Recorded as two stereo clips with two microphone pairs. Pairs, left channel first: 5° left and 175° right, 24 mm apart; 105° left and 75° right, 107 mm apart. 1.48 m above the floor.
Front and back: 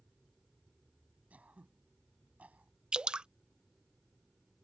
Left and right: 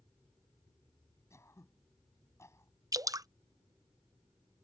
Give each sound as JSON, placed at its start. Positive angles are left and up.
{"t": 1.3, "sound": "throat clearing", "azimuth_deg": 175}
{"t": 2.9, "sound": "dripping", "azimuth_deg": -130}